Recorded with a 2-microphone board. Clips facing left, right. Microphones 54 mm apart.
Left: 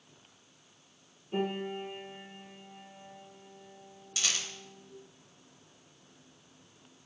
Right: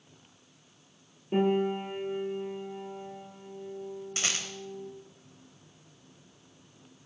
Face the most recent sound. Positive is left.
turn(degrees=-40)  # may be behind; listen again after turning